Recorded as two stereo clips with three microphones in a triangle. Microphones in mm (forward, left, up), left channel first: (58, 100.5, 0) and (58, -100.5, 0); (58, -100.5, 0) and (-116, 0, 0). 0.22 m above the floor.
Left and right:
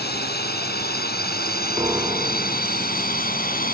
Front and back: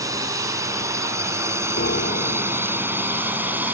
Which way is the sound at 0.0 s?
80° left.